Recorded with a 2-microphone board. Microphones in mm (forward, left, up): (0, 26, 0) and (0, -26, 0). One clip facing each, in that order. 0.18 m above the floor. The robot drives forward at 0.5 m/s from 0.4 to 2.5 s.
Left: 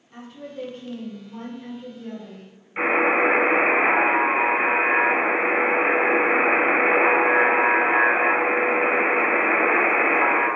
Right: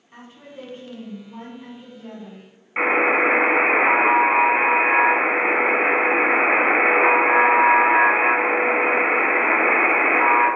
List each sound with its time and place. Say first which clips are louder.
0.1 s a woman speaking: left 4 dB; 25° right (ahead or behind), 1.3 m; by 2.5 s 15° right (ahead or behind), 1.8 m
2.8 s a buzzer: right 1 dB; 35° right (ahead or behind), 1.1 m